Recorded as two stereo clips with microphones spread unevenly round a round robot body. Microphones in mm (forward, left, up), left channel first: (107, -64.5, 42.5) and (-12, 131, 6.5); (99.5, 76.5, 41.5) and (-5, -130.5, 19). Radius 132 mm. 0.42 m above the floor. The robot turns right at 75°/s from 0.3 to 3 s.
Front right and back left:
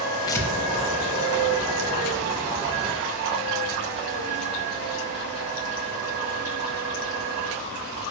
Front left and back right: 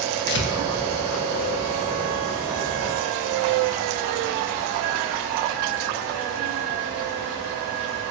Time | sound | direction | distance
0.3 | tearing paper | 15° left | 0.5 m